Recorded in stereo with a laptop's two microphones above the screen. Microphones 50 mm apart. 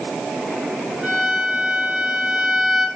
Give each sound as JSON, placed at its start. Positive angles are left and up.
{"t": 1.0, "sound": "a violin", "side_deg": -10, "distance_m": 3.5}